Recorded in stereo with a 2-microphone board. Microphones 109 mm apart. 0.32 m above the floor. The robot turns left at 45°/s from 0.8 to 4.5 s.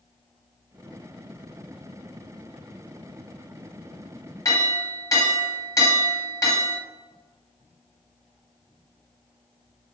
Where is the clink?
30° left (ahead or behind), 1.4 m.